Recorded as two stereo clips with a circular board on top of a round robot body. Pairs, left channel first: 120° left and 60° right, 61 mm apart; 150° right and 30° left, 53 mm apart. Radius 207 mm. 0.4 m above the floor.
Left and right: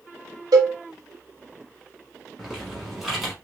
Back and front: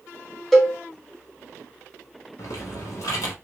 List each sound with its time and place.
0.5 s a cowbell: 65° right, 0.7 m
2.4 s typing on a keyboard: 145° right, 0.7 m